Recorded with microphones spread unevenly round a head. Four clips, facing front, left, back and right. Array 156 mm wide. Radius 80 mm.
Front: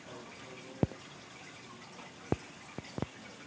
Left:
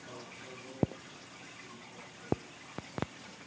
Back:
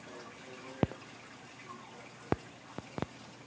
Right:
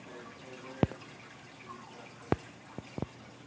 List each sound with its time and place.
Only background noise.